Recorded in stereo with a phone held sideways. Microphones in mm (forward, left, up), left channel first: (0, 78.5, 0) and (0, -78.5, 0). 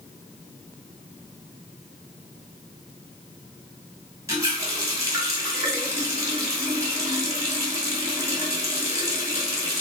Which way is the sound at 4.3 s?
20° right (ahead or behind).